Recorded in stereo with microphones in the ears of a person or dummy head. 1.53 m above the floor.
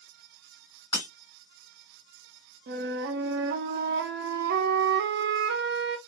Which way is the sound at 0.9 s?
15° left (ahead or behind).